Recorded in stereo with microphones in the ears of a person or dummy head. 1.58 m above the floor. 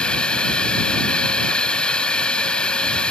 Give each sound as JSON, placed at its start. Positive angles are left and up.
{"t": 0.0, "sound": "a drone", "side_deg": 20}